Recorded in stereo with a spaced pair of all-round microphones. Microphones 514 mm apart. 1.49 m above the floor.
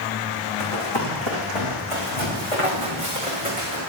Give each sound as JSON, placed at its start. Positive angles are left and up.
{"t": 0.6, "sound": "running footsteps", "side_deg": 65, "distance_m": 4.5}